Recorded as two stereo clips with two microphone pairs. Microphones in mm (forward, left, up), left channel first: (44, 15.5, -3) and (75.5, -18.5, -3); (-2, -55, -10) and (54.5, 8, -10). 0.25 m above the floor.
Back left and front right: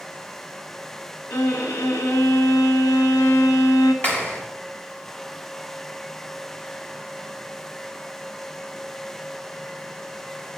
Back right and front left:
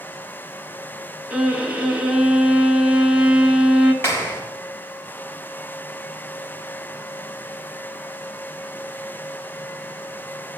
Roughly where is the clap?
Behind.